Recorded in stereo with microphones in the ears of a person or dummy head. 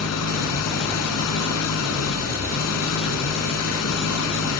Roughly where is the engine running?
Left.